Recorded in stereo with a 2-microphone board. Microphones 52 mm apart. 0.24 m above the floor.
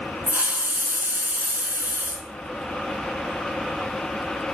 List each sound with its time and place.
0.3 s a hiss: 35° right (ahead or behind), 0.8 m